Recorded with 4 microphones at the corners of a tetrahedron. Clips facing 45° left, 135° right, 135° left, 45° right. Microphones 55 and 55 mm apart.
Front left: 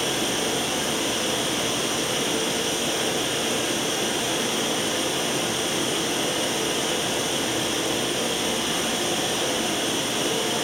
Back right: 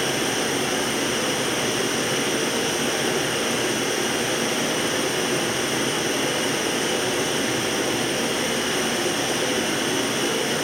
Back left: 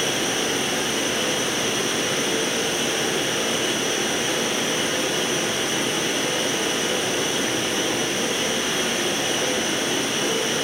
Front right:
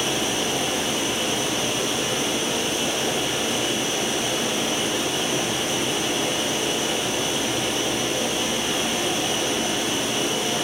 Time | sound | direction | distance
0.0 | running water | straight behind | 4.5 m